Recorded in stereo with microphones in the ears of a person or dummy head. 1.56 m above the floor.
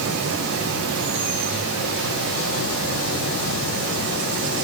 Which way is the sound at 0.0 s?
80° right.